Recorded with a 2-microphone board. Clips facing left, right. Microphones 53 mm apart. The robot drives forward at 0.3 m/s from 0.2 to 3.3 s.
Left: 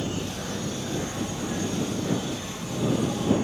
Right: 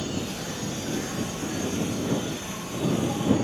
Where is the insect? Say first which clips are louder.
Even; 20° left (ahead or behind), 0.8 m; by 3.4 s 10° left (ahead or behind), 1.7 m.